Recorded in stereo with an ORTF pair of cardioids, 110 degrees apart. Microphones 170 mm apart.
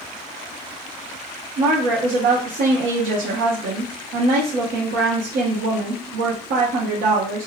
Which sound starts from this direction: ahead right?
A woman speaking, at 1.6 s.